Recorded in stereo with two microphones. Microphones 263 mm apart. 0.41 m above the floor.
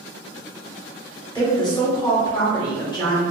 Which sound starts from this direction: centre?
A woman speaking, at 1.4 s.